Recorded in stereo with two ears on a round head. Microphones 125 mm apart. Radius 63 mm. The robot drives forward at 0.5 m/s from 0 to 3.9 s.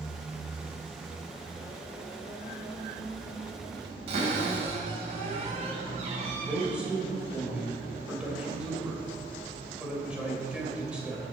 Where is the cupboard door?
50° right (ahead or behind), 4 m.